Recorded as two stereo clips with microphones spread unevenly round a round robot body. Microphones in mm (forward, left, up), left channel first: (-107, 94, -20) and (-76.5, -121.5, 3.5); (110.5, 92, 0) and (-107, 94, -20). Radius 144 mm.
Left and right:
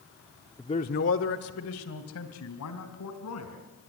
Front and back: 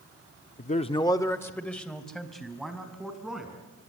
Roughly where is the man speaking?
Ahead left.